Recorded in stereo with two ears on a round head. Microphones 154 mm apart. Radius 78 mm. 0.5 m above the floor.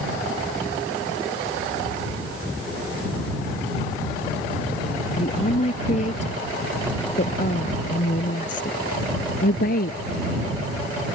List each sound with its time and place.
5.2 s a woman speaking: 40° left (ahead or behind); by 10.0 s 60° left (ahead or behind)